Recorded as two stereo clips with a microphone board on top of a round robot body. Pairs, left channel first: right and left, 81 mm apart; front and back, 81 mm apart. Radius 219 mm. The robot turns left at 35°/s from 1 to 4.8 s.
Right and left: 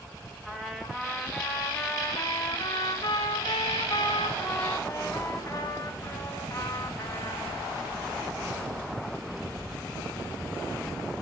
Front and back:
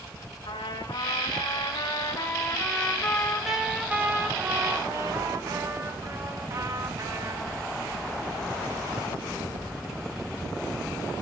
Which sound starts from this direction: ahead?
A trumpet, at 0.5 s.